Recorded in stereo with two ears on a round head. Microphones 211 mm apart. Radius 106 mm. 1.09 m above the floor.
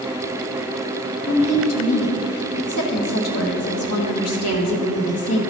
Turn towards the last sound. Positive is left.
turn(degrees=70)  # may be behind; listen again after turning